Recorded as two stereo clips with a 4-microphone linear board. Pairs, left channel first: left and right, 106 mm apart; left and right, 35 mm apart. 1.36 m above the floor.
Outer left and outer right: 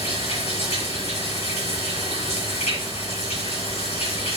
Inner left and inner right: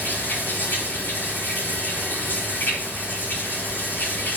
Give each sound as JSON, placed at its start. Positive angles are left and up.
{"t": 0.0, "sound": "running water", "side_deg": 80, "distance_m": 8.0}